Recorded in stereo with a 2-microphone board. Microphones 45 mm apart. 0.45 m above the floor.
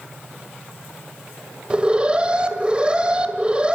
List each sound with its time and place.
1.7 s an alarm: 20° right (ahead or behind), 1.9 m